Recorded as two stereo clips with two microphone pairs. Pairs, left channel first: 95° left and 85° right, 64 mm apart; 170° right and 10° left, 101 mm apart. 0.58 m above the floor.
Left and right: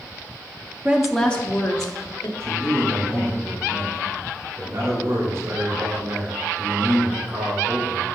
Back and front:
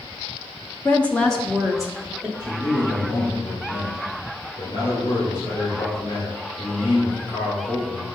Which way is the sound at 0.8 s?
125° right.